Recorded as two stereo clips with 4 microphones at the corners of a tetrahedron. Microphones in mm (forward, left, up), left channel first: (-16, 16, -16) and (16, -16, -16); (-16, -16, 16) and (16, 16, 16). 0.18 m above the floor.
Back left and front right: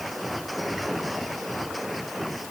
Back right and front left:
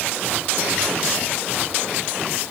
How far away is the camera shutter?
No camera shutter in this recording.